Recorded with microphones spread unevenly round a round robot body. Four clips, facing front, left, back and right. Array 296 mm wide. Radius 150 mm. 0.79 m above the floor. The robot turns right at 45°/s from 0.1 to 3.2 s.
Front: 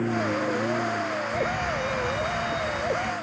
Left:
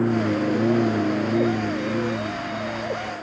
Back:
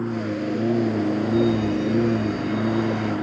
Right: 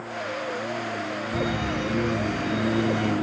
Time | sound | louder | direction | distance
0.0 | a lawn mower | left 10 dB, even | 95° left | ?
1.3 | a fire alarm | left 5 dB, back 8 dB | 90° right | ?